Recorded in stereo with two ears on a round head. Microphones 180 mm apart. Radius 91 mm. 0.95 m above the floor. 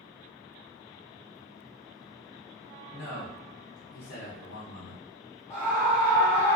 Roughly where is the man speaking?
Left.